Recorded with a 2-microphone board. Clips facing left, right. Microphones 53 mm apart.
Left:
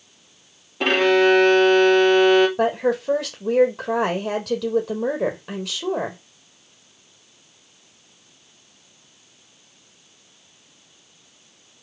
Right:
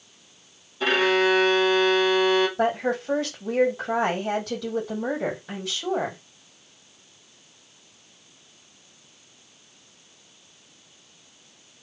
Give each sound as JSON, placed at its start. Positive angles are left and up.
{"t": 0.8, "sound": "a violin", "side_deg": 65, "distance_m": 1.5}
{"t": 2.6, "sound": "a woman speaking", "side_deg": 70, "distance_m": 3.5}